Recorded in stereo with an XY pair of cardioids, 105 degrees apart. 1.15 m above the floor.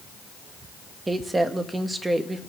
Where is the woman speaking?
20° right, 1.4 m.